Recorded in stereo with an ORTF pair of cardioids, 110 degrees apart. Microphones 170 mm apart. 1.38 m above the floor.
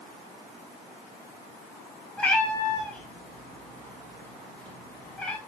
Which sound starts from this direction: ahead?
A cat meowing, at 2.2 s.